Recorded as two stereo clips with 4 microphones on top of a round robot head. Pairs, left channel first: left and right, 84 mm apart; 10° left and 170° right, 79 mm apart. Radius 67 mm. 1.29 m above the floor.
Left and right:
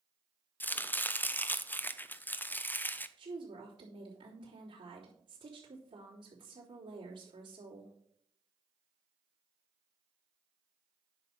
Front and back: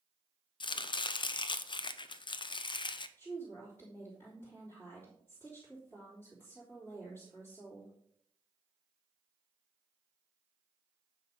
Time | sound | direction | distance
0.6 | chopping | 20° left | 0.7 m
3.2 | a woman speaking | 65° right | 3.5 m